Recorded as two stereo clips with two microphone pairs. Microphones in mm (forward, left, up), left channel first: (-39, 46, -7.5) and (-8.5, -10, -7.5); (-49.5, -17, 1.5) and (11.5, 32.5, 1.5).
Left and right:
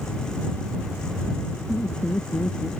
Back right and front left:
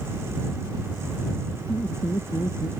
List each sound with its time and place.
1.7 s laughter: straight behind; by 2.7 s 175° left